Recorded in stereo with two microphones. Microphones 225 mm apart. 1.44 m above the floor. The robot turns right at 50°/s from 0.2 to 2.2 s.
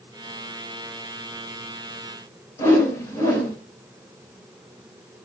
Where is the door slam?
No door slam in this recording.